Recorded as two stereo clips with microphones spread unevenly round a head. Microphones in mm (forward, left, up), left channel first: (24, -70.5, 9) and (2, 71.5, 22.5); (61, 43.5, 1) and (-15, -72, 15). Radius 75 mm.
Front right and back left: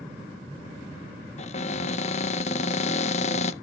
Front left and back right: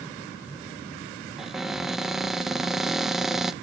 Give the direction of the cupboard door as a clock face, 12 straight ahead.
1 o'clock.